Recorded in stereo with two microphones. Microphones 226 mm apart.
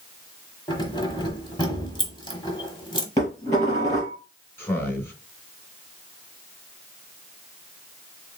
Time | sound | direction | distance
0.7 | keys jangling | 20° left (ahead or behind) | 1.2 m
3.2 | dishes clattering | 15° left (ahead or behind) | 4 m
4.6 | a man speaking | 10° left (ahead or behind) | 2.5 m